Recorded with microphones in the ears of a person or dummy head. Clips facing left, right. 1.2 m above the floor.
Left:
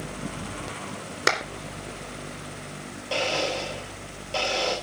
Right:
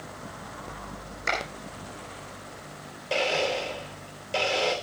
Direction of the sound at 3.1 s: 25° right (ahead or behind).